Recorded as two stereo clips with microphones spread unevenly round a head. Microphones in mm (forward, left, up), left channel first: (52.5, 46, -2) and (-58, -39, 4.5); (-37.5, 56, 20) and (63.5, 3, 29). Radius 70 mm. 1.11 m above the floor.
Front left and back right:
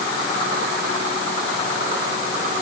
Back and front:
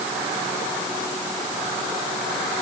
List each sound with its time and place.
Only background noise.